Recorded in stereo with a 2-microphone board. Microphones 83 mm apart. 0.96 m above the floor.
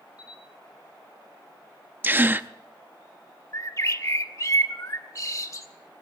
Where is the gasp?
25° right (ahead or behind), 0.5 m.